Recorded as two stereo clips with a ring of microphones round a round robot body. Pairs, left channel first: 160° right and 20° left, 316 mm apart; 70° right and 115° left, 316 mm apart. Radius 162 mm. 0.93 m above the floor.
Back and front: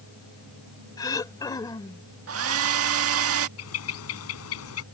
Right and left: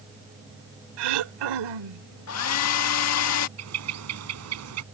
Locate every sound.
1.0 s throat clearing: 125° left
2.3 s a hair dryer: 25° right
3.6 s a bird: 155° left